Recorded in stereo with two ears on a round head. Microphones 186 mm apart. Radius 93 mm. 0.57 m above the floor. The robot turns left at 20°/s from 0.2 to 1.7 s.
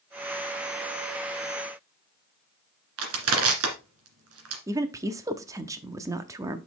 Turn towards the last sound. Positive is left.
turn(degrees=-15)  # may be behind; listen again after turning